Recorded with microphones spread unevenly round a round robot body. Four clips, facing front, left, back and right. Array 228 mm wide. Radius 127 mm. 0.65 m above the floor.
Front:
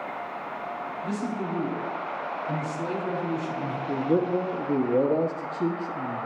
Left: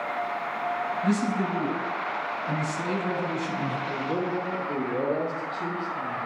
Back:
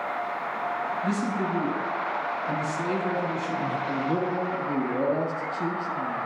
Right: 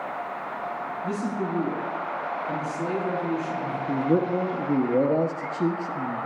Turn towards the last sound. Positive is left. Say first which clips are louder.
# right 9 dB, front 6 dB
turn(degrees=-90)